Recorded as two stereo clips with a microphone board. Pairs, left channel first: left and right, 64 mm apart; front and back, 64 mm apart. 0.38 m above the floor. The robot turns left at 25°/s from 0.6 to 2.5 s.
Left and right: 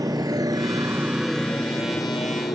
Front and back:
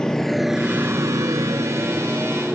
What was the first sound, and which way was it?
A motorcycle, 80° right.